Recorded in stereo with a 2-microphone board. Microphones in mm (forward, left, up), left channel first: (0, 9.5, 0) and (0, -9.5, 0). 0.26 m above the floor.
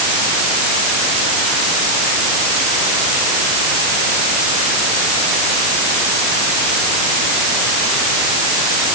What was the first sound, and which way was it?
Only background noise.